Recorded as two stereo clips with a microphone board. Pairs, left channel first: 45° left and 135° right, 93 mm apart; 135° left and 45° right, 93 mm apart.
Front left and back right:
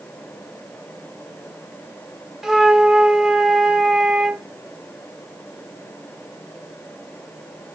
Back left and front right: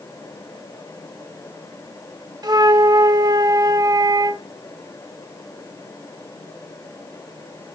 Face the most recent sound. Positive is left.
turn(degrees=-55)